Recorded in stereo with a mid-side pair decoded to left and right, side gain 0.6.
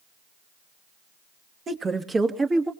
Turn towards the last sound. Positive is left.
turn(degrees=-25)